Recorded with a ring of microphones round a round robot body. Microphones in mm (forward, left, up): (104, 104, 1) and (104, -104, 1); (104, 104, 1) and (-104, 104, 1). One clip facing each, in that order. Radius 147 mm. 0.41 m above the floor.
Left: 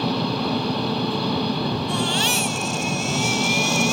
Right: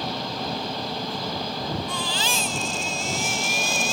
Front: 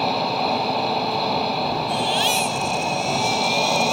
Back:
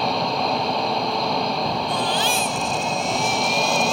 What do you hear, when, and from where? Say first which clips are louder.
0.0 s an engine running: left 8 dB, even; 90° left
1.9 s a baby crying: left 6 dB, even; 125° right